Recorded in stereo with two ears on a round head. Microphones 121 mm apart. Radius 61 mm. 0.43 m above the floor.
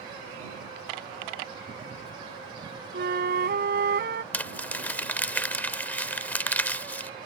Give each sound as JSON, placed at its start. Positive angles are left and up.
{"t": 2.9, "sound": "a flute", "side_deg": -75}
{"t": 4.3, "sound": "crumpling", "side_deg": 10}